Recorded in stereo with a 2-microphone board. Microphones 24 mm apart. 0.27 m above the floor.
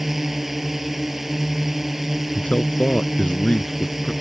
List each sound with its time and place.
0.0 s a drone: 15° right (ahead or behind)
2.4 s a man speaking: 60° left (ahead or behind)